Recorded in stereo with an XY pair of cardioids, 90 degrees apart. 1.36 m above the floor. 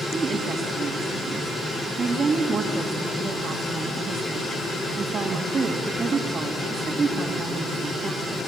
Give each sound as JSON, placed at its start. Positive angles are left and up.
{"t": 0.1, "sound": "a woman speaking", "azimuth_deg": -50, "distance_m": 2.5}